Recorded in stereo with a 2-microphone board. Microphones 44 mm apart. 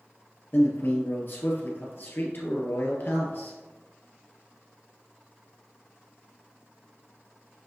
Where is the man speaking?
45° left (ahead or behind), 1.7 m.